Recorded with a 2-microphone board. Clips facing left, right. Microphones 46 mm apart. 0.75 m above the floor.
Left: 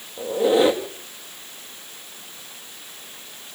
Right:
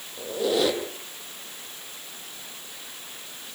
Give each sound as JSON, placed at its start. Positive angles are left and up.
{"t": 0.2, "sound": "a squeak", "side_deg": 25, "distance_m": 2.0}